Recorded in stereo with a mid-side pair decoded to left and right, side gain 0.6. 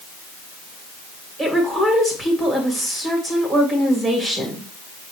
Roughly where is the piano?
No piano in this recording.